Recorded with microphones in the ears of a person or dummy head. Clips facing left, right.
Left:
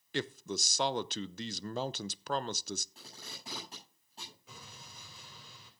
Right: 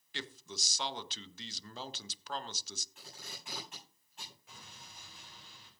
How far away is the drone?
I don't hear a drone.